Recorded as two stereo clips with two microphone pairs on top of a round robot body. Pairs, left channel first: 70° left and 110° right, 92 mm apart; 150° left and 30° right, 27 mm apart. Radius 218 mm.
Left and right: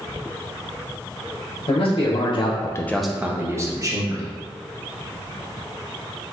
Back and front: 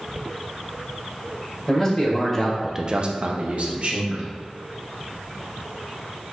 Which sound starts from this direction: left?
A man speaking, at 1.7 s.